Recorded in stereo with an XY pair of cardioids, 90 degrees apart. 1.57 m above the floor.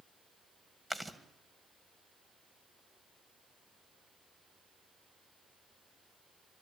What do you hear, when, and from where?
0.9 s chewing: 15° right, 1.9 m